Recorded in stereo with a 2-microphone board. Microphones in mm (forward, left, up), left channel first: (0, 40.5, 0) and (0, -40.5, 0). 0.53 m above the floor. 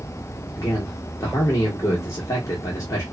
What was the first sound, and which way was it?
A man speaking, 45° left (ahead or behind).